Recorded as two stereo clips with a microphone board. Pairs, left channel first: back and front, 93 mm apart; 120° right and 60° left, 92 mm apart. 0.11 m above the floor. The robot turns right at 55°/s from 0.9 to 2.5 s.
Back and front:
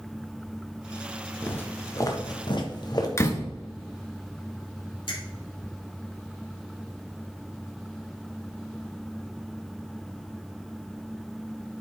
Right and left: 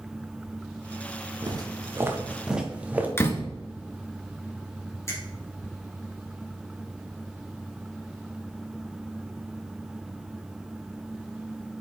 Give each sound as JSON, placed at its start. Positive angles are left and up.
{"t": 1.4, "sound": "footsteps", "azimuth_deg": 105, "distance_m": 1.8}
{"t": 3.2, "sound": "a door slam", "azimuth_deg": -160, "distance_m": 1.3}
{"t": 5.1, "sound": "a finger snap", "azimuth_deg": -175, "distance_m": 3.5}